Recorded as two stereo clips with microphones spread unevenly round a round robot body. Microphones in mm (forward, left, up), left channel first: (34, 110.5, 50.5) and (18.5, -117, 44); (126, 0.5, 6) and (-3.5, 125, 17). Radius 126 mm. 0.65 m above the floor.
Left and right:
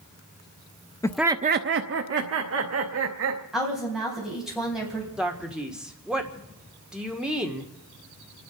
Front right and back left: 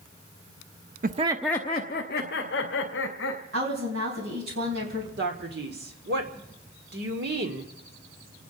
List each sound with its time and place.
1.0 s laughter: 160° left, 0.6 m; by 3.4 s 75° right, 2.5 m
3.5 s a woman speaking: straight behind, 4 m
5.2 s a man speaking: straight behind, 1.6 m